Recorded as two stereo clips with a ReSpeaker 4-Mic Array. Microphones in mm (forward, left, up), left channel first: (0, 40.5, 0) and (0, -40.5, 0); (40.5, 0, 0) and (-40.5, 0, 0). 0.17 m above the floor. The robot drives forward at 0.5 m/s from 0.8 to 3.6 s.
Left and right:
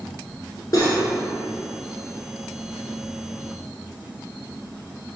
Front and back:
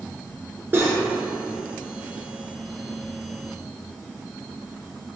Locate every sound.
0.7 s cutlery clinking: 120° left, 1.2 m; by 1.1 s 125° left, 1.3 m